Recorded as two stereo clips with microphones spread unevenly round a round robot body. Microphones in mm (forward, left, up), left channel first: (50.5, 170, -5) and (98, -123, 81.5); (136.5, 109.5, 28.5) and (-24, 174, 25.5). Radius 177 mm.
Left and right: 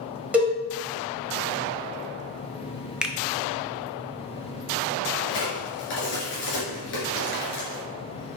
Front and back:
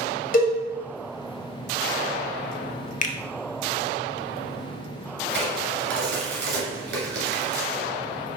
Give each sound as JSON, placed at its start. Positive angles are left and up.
{"t": 0.3, "sound": "a cowbell", "azimuth_deg": 10, "distance_m": 1.7}
{"t": 3.0, "sound": "a finger snap", "azimuth_deg": 20, "distance_m": 0.6}
{"t": 5.3, "sound": "a crack", "azimuth_deg": 160, "distance_m": 1.6}